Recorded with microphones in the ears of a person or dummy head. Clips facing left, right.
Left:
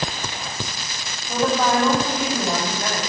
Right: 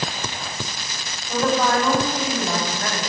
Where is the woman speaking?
10° left (ahead or behind), 7.5 m.